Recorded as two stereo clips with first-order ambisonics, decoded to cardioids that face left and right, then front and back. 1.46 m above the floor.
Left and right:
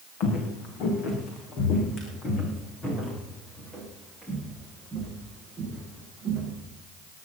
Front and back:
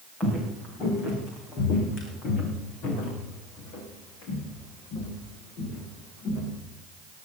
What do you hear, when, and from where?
0.2 s footsteps: 65° left, 5 m; by 6.6 s 5° right, 9.5 m